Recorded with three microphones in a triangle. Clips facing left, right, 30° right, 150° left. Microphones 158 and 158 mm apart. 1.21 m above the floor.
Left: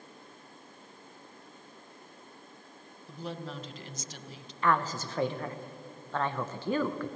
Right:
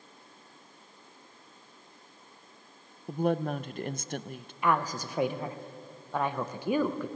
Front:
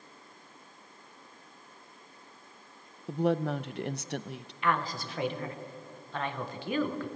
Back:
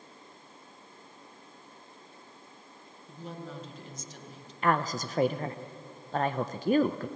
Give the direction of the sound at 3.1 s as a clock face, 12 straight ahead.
2 o'clock.